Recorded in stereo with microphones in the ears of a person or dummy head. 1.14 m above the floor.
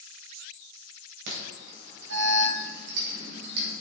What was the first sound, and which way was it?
An alarm, 70° right (ahead or behind).